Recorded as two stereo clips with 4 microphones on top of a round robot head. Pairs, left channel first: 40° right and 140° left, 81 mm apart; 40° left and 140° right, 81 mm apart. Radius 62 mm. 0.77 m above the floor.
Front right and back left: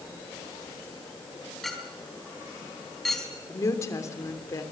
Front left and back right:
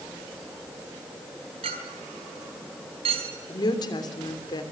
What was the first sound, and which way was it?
A clink, 130° right.